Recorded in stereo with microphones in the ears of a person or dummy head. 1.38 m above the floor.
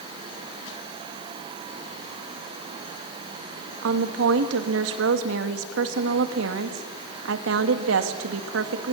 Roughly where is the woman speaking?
Right.